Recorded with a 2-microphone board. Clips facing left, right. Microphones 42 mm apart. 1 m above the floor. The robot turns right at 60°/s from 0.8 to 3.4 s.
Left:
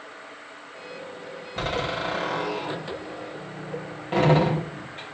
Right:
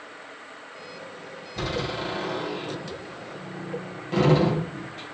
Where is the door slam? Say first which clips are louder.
Left 2 dB; 40° left (ahead or behind), 4 m; by 5.1 s 30° left (ahead or behind), 4 m.